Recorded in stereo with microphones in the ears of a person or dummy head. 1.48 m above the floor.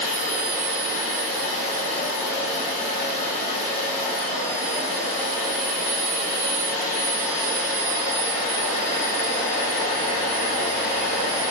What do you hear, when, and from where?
0.0 s a machine running: 45° left (ahead or behind), 1.9 m